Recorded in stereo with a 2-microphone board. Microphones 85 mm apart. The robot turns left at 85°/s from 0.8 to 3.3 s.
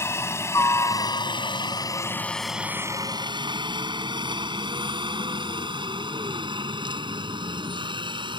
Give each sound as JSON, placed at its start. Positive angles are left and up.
{"t": 0.0, "sound": "a helicopter", "side_deg": 30}